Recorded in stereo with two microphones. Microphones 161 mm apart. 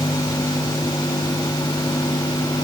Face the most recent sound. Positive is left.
No sound to turn to.